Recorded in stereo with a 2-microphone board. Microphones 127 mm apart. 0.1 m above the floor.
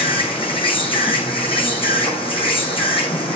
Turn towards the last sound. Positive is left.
turn(degrees=45)  # may be behind; listen again after turning